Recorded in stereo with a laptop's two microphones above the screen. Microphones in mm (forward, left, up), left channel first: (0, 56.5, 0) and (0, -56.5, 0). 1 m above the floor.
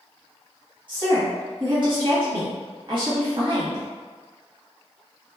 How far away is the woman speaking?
About 1.4 m.